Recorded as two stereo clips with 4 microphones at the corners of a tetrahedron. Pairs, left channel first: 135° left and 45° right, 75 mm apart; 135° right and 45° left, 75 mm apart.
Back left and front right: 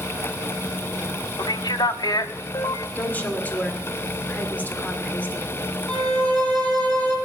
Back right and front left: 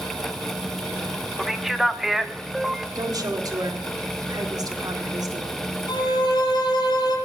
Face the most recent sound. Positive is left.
turn(degrees=-150)